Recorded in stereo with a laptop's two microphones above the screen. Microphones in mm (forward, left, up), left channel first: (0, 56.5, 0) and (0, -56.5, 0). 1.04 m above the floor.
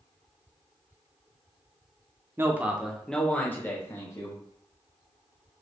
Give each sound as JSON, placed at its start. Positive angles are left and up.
{"t": 2.4, "sound": "a man speaking", "side_deg": -20, "distance_m": 0.9}